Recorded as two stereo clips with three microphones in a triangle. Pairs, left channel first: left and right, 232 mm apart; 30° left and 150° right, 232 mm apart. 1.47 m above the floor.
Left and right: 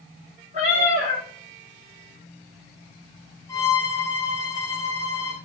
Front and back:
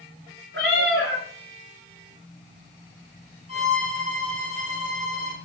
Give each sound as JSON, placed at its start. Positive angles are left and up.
{"t": 0.5, "sound": "a cat meowing", "azimuth_deg": -145, "distance_m": 1.4}
{"t": 3.5, "sound": "a violin", "azimuth_deg": 165, "distance_m": 1.2}